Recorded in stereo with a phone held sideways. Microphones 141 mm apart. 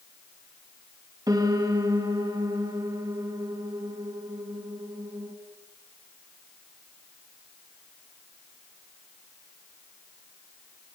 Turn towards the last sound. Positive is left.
turn(degrees=-25)  # may be behind; listen again after turning